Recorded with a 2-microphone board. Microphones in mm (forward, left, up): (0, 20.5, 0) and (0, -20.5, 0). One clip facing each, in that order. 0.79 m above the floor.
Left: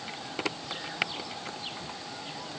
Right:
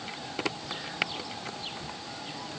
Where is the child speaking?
I don't hear a child speaking.